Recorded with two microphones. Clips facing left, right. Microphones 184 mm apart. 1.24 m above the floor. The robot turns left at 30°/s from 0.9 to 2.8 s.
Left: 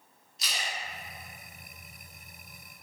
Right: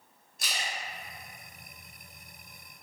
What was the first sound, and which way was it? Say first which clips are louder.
A splash: even; 50° right (ahead or behind).